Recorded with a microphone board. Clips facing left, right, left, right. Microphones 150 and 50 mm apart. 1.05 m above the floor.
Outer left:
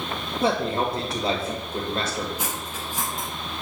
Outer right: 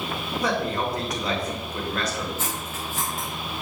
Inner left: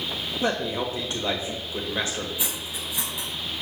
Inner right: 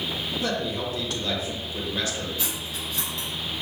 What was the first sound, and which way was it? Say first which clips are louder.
A man speaking: outer left 3 dB, inner left 4 dB; 30° left (ahead or behind).